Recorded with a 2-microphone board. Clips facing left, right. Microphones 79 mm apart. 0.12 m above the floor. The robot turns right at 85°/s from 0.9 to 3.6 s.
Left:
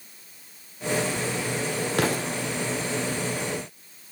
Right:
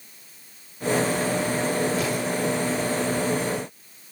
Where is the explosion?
75° left, 3 m; by 2.3 s 110° left, 3 m.